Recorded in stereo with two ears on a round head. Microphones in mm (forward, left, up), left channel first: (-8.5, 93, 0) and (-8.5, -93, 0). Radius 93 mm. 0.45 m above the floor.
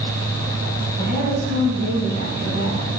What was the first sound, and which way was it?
A woman speaking, 60° right (ahead or behind).